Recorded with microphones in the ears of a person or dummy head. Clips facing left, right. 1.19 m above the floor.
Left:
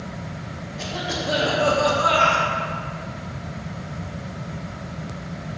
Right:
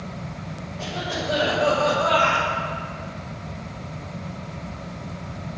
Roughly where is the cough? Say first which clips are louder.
Even; left.